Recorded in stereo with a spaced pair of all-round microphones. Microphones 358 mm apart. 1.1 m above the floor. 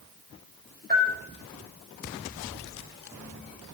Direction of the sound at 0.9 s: 25° right (ahead or behind).